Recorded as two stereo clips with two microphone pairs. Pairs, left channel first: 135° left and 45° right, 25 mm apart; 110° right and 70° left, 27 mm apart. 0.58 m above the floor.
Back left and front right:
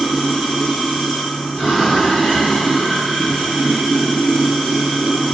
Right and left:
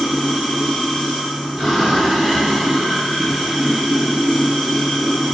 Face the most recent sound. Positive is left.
turn(degrees=160)